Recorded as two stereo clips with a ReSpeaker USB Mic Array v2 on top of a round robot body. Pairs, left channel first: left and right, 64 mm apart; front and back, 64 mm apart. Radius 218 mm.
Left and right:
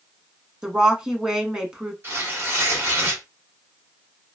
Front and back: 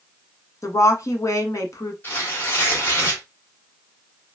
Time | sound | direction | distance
0.6 | a woman speaking | 15° right | 1.4 m
2.0 | tearing paper | 45° right | 1.8 m